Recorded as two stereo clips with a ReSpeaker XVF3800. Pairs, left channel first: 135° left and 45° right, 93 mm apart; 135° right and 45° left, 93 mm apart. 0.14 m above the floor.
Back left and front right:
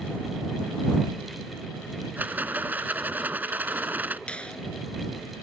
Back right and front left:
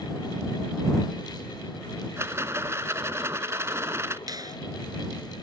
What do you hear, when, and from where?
2.2 s a rattle: 10° left
4.3 s a finger snap: 60° left